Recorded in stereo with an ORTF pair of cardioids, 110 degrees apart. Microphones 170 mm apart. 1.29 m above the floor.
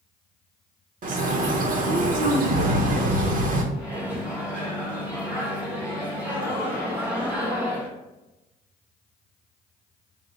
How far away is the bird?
About 0.8 m.